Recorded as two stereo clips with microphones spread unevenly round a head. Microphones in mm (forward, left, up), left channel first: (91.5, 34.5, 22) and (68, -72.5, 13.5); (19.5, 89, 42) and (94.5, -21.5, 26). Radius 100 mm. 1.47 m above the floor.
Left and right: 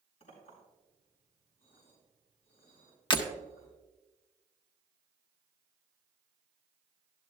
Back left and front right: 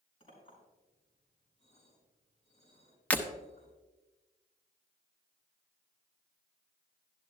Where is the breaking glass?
55° left, 0.9 m.